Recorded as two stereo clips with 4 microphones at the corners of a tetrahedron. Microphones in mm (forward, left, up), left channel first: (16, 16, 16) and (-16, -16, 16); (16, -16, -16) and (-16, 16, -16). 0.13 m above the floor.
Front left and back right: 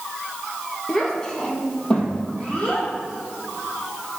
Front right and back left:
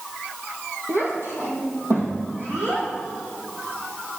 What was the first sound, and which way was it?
A child speaking, 120° left.